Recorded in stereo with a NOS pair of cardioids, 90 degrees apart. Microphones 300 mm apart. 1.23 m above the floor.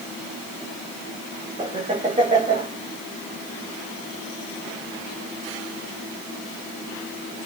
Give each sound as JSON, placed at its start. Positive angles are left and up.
{"t": 1.6, "sound": "laughter", "azimuth_deg": -20, "distance_m": 2.0}